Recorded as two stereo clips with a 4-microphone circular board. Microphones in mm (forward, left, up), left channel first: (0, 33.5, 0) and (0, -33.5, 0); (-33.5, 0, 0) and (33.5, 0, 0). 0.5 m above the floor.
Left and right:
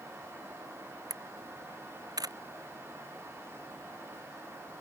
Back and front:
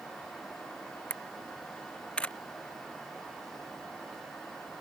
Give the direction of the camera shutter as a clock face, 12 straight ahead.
4 o'clock.